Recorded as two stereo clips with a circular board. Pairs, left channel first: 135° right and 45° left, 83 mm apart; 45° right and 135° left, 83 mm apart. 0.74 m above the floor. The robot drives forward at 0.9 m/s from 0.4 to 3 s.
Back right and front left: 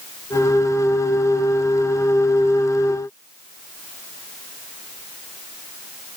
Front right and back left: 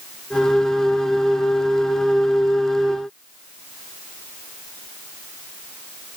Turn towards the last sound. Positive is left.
No sound to turn to.